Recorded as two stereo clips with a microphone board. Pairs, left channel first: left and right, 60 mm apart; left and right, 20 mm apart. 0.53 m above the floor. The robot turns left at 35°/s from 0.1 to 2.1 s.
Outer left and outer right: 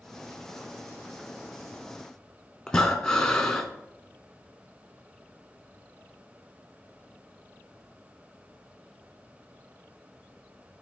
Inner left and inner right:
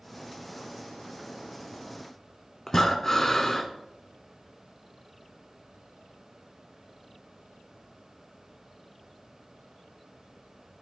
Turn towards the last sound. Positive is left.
turn(degrees=10)  # may be behind; listen again after turning